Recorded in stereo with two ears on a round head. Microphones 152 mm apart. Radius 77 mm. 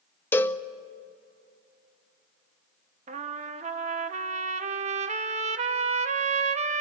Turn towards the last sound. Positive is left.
turn(degrees=-40)  # may be behind; listen again after turning